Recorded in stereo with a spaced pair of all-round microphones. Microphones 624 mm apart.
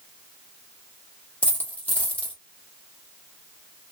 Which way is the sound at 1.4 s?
5° left (ahead or behind).